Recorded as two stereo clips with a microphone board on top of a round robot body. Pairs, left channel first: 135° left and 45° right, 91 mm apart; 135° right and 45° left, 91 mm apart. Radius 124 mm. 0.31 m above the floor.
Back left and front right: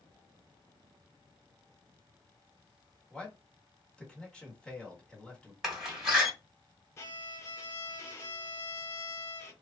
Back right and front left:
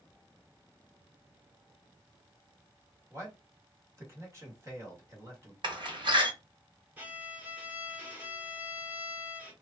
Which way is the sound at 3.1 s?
65° left.